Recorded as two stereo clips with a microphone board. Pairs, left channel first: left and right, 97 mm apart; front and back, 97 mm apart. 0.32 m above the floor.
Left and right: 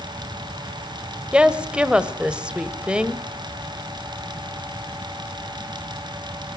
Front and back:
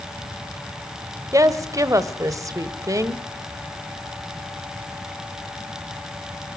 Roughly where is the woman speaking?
Behind.